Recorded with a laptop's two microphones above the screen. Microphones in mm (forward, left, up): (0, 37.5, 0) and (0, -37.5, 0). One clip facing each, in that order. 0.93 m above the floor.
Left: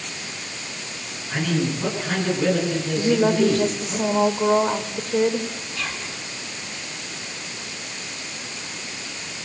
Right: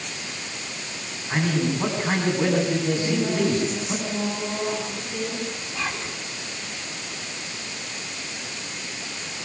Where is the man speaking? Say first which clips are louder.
Even; 30° right (ahead or behind), 9.5 m.